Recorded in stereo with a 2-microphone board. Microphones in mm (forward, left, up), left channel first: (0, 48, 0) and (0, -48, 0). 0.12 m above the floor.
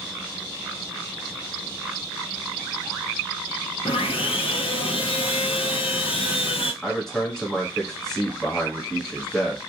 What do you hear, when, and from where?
3.9 s sawing: 70° left (ahead or behind), 0.6 m
6.8 s a man speaking: 5° left (ahead or behind), 1.2 m